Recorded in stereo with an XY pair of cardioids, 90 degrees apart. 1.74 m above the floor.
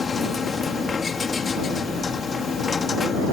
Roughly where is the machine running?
Ahead left.